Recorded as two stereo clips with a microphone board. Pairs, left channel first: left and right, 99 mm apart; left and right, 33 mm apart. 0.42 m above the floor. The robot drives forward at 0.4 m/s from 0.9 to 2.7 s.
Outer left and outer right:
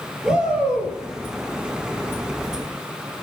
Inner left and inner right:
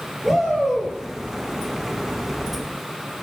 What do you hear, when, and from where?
0.2 s a shout: 5° right (ahead or behind), 9.5 m